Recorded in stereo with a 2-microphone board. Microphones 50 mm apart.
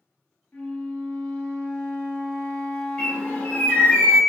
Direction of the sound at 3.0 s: 15° left (ahead or behind).